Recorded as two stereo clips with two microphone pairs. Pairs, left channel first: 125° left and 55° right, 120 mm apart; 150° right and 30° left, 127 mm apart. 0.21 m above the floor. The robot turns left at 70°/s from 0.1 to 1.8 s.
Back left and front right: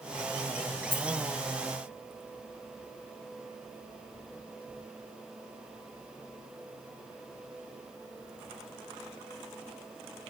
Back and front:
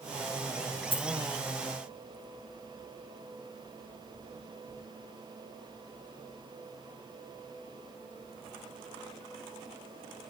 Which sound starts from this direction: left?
A dropped coin, at 0.9 s.